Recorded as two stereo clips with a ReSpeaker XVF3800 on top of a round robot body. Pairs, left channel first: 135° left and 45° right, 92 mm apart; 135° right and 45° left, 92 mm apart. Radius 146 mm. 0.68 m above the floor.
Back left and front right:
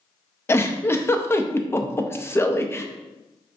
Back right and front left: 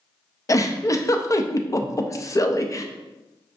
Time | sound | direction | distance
0.5 | a giggle | 175° right | 0.6 m